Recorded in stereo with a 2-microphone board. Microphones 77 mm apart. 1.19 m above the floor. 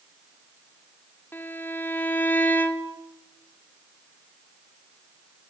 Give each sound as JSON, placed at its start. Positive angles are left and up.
{"t": 1.3, "sound": "a violin", "side_deg": 25, "distance_m": 2.5}